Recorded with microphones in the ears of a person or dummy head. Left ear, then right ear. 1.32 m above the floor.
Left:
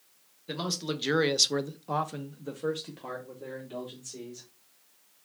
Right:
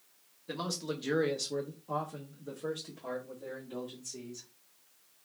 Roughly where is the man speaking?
Centre.